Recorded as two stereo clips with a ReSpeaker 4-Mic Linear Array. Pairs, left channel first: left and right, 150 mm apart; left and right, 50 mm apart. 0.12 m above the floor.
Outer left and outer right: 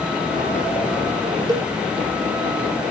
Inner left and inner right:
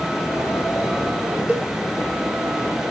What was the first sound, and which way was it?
A cowbell, 25° right (ahead or behind).